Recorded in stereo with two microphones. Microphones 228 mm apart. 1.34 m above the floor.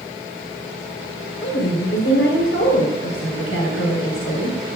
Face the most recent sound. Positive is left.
turn(degrees=70)  # may be behind; listen again after turning